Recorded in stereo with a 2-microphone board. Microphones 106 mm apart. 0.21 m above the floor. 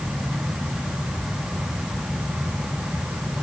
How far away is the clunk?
I don't hear a clunk.